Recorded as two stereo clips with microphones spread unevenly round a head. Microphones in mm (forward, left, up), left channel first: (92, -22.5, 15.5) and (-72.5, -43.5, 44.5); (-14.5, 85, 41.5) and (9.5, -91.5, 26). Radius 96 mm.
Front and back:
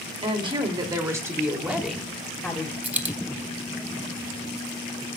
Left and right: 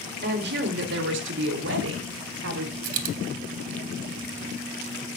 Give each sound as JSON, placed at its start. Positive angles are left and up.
{"t": 0.2, "sound": "a woman speaking", "azimuth_deg": -115, "distance_m": 3.0}
{"t": 2.8, "sound": "a dropped coin", "azimuth_deg": -95, "distance_m": 1.4}